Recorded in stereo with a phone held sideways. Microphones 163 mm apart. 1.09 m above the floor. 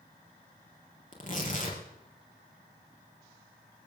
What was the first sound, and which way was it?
Tearing paper, 55° left (ahead or behind).